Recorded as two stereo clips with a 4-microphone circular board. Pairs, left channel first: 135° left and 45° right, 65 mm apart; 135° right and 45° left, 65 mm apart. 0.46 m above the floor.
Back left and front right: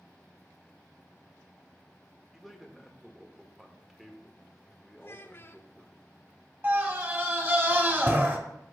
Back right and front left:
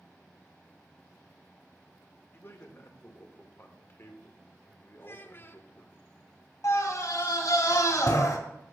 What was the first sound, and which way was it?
A man speaking, 130° right.